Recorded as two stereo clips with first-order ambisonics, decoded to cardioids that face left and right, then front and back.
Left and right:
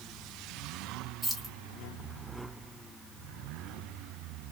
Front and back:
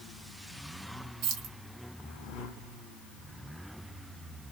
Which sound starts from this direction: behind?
Keys jangling, at 1.2 s.